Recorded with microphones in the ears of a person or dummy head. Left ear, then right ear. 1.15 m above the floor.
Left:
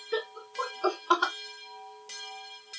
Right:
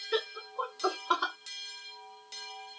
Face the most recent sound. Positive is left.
turn(degrees=10)  # may be behind; listen again after turning